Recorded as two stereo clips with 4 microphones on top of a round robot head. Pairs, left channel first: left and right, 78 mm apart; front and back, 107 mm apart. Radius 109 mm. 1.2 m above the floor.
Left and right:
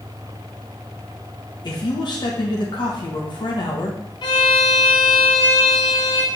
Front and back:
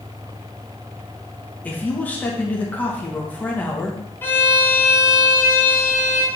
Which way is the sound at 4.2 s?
70° left.